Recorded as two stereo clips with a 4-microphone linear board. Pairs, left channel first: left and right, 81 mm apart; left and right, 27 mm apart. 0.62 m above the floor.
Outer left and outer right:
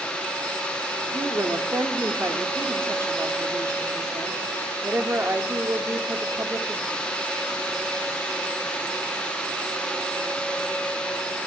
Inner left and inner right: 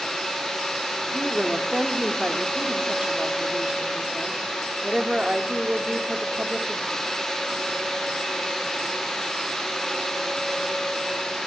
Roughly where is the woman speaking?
Right.